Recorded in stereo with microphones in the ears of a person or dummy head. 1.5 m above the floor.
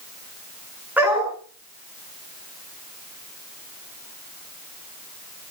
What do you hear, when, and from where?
1.0 s a dog barking: 5° right (ahead or behind), 7 m